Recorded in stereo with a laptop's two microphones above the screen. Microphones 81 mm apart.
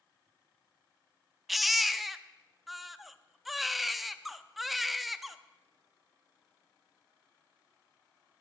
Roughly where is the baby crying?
Centre.